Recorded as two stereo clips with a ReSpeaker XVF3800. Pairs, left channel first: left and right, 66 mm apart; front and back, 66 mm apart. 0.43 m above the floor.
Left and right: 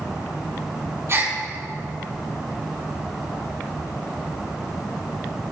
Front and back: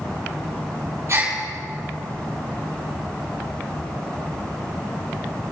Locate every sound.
1.1 s a gasp: 140° right, 5 m